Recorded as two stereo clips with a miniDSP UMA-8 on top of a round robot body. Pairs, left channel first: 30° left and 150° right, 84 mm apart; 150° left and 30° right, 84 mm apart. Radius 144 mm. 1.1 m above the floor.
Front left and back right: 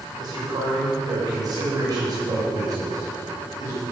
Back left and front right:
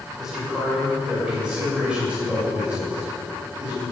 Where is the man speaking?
115° right, 6 m; by 3.8 s 100° right, 8.5 m.